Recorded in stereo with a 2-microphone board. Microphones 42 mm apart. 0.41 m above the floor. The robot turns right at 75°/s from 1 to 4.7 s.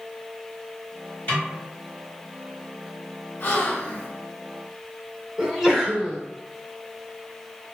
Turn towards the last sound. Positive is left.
turn(degrees=-10)  # may be behind; listen again after turning